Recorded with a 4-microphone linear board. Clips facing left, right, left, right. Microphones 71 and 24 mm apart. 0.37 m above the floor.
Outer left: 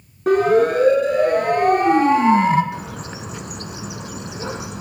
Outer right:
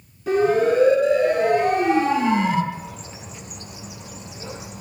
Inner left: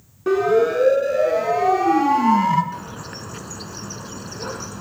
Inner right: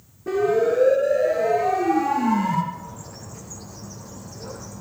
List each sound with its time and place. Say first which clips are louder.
0.3 s a siren: outer left 3 dB, inner left 3 dB; 55° left (ahead or behind), 4 m; by 2.6 s 40° left (ahead or behind), 3 m
2.7 s a bird: outer left 5 dB, inner left 5 dB; 80° left, 0.8 m